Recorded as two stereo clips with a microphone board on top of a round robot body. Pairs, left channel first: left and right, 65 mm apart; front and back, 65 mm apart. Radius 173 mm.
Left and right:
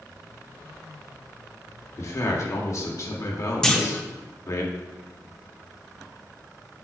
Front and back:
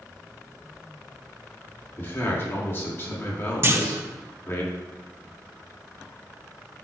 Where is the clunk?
165° left, 1.4 m.